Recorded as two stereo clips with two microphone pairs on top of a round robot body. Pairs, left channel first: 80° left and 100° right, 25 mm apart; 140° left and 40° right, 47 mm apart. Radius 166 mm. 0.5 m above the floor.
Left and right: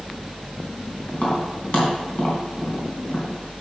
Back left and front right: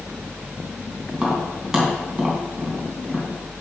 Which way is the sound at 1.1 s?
40° left.